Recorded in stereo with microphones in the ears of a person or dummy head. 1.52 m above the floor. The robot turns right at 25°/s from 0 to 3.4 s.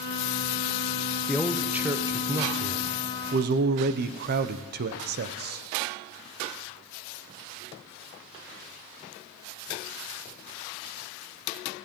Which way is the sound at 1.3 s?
175° left.